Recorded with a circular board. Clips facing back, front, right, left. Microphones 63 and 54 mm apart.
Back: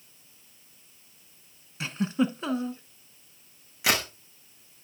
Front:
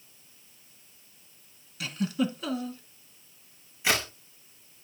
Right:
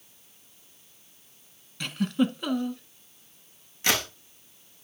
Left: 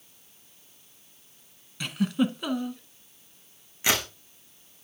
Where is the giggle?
175° left, 0.8 m.